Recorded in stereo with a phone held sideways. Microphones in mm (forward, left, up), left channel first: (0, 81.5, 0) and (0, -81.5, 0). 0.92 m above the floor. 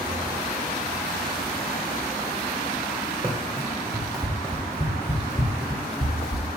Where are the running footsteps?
10° right (ahead or behind), 2 m; by 6.5 s 40° left (ahead or behind), 1.4 m.